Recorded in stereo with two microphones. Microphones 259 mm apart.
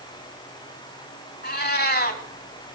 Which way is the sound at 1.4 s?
40° left (ahead or behind).